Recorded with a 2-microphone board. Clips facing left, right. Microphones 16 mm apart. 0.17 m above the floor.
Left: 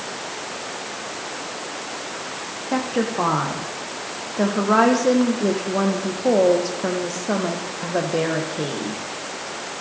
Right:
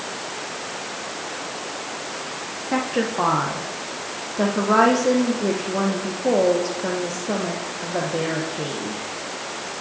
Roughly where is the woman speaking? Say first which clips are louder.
Even; centre.